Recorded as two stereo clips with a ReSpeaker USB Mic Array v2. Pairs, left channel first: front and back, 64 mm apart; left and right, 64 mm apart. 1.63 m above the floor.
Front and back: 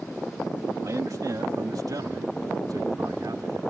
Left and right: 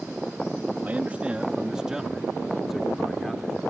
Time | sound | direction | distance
0.8 | a man speaking | 155° right | ?